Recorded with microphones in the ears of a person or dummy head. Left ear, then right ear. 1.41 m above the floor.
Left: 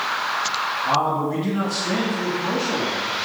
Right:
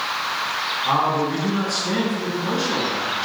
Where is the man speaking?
25° right (ahead or behind), 1.8 m.